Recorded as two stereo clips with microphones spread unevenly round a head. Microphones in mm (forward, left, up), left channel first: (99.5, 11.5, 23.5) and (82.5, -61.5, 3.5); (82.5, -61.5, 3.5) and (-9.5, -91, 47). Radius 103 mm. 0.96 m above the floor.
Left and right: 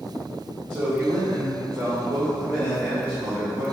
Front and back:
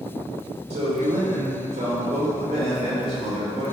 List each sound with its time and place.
0.7 s a man speaking: 165° right, 1.7 m